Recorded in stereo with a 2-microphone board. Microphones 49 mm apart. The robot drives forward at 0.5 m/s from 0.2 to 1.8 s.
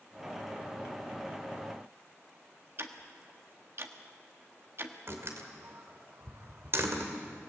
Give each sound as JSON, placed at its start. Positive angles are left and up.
{"t": 2.8, "sound": "ticking", "side_deg": -50, "distance_m": 1.4}
{"t": 5.1, "sound": "a door slam", "side_deg": -55, "distance_m": 2.5}